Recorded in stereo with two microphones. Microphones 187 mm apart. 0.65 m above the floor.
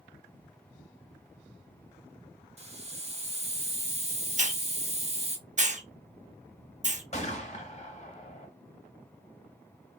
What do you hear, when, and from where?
2.6 s a hiss: 35° right (ahead or behind), 0.6 m
4.4 s a hiss: 40° right (ahead or behind), 0.5 m
7.1 s a gunshot: 35° left (ahead or behind), 1.0 m